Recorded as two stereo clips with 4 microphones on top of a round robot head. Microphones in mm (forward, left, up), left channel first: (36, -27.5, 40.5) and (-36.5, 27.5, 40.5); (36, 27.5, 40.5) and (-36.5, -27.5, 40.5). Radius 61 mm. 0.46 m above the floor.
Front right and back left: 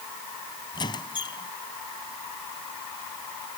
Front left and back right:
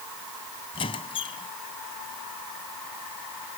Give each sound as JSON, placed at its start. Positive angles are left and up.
{"t": 0.7, "sound": "a squeak", "azimuth_deg": 5}